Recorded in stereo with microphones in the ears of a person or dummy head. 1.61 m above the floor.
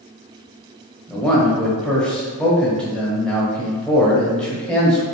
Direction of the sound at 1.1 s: 5° left (ahead or behind).